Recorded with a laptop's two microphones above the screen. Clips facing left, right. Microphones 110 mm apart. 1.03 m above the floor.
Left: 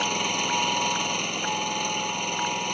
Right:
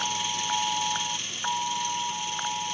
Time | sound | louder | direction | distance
0.0 | an engine running | left 4 dB | 60° left (ahead or behind) | ?